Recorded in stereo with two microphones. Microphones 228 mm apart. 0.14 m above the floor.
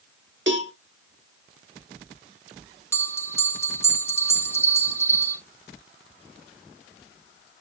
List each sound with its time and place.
0.5 s a cowbell: 55° right (ahead or behind), 0.7 m
2.9 s a bell: 10° left (ahead or behind), 1.1 m